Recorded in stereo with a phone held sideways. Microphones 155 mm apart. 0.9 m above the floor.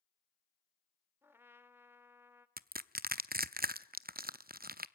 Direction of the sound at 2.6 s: 70° right (ahead or behind).